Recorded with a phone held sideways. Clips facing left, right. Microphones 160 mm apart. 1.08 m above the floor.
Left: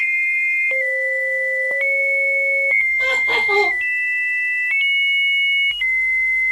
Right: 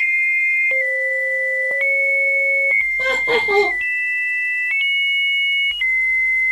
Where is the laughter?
40° right (ahead or behind), 1.5 m.